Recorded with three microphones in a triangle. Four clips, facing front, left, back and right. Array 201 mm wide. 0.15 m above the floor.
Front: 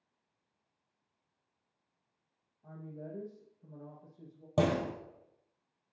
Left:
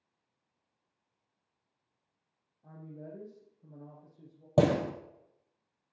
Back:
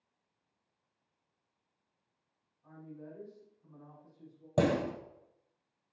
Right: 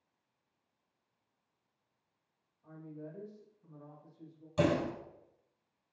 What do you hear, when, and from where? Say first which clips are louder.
2.6 s a woman speaking: even, front 3 dB; 40° left, 7 m
4.6 s a door slam: left 4 dB, back 1 dB; 95° left, 2.5 m